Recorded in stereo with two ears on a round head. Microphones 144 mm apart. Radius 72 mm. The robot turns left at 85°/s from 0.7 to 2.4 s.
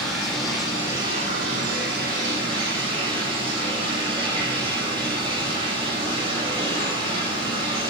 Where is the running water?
Straight ahead, 9.5 m; by 7.9 s 145° right, 9.5 m.